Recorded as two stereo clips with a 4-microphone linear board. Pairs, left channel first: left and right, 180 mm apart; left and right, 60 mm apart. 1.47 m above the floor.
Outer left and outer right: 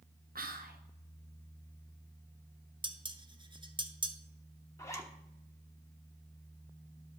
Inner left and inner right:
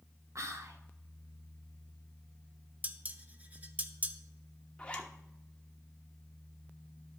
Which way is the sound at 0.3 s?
55° right (ahead or behind).